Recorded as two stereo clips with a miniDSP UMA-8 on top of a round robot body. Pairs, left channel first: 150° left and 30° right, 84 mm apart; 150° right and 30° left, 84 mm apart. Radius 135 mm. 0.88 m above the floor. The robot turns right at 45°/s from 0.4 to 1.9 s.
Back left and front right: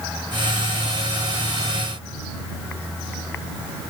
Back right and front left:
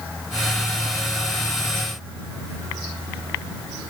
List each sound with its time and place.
Only background noise.